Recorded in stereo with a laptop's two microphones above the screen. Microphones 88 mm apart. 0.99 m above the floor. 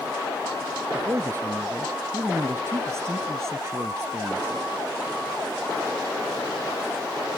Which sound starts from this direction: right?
A man speaking, at 0.9 s.